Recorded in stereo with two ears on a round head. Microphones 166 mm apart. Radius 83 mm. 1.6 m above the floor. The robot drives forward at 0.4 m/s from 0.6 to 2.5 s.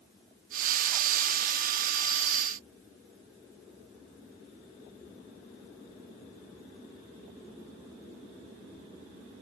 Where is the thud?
I don't hear a thud.